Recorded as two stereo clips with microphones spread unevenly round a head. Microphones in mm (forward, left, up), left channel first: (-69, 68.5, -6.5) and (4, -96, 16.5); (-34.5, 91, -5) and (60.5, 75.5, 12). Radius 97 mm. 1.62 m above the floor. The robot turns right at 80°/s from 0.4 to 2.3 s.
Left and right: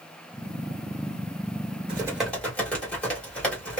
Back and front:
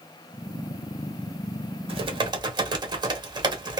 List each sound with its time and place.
1.9 s typing on a keyboard: 5° right, 1.1 m; by 3.8 s 30° left, 1.1 m